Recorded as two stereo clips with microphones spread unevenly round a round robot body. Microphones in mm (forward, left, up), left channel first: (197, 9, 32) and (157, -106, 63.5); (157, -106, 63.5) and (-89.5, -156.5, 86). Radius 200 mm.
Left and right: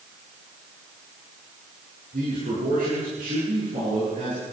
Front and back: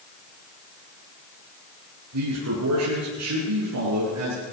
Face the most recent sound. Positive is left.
turn(degrees=-155)